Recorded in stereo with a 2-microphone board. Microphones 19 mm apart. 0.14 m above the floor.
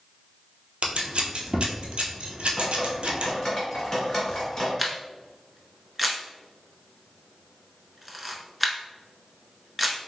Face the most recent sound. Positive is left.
turn(degrees=0)  # may be behind; listen again after turning